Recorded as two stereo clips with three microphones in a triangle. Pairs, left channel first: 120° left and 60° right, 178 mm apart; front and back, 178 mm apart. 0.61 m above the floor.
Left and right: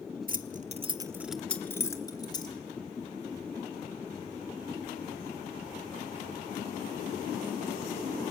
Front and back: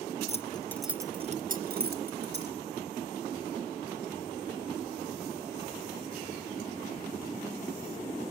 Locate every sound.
0.3 s keys jangling: 45° right, 1.0 m; by 2.5 s 175° right, 2 m